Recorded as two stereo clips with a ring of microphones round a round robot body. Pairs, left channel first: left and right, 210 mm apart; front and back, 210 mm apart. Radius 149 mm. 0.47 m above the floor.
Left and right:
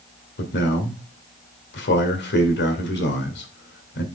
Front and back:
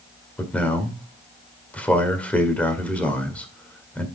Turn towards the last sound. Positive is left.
turn(degrees=80)